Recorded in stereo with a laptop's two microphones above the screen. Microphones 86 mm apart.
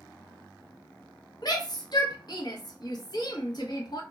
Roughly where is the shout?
Left.